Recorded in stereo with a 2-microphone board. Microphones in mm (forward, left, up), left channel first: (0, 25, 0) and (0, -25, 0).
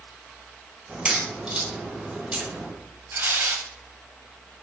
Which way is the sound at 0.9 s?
20° right (ahead or behind).